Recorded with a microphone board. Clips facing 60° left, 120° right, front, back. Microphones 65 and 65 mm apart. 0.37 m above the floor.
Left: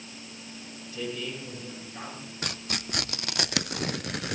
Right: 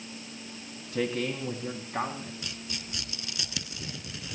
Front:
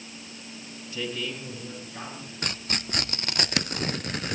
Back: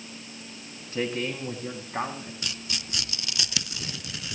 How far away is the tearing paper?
About 0.6 m.